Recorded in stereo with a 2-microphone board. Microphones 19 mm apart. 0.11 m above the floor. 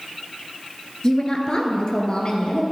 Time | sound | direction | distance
1.0 | a woman speaking | 35° left (ahead or behind) | 1.5 m